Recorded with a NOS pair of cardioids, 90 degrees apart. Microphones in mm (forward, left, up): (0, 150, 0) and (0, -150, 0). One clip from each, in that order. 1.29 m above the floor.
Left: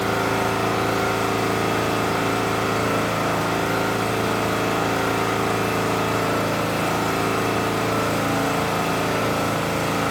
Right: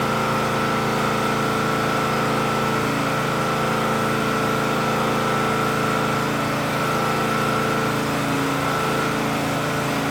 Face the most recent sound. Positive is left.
turn(degrees=15)